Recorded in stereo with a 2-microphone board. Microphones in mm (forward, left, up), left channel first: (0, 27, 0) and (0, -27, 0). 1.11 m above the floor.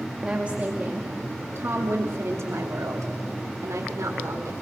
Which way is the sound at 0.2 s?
20° right (ahead or behind).